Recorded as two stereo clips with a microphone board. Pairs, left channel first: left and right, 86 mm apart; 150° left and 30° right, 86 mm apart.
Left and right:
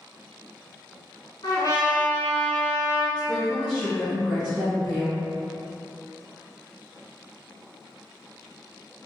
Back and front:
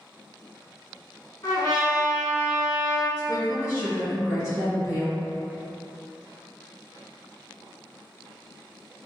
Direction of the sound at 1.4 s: 120° left.